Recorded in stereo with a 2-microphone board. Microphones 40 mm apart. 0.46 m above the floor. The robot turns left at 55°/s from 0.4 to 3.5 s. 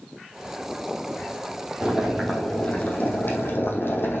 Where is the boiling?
160° right, 3.5 m; by 4.2 s 110° left, 3.5 m.